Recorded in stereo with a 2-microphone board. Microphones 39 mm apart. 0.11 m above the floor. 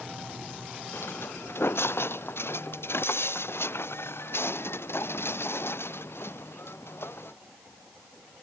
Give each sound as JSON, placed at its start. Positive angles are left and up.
{"t": 0.9, "sound": "footsteps", "side_deg": 85}